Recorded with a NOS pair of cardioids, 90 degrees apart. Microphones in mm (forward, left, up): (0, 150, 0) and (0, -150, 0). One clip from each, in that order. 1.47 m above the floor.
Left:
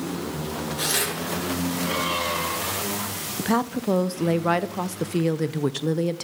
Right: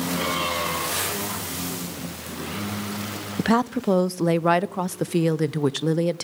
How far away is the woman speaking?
About 0.6 m.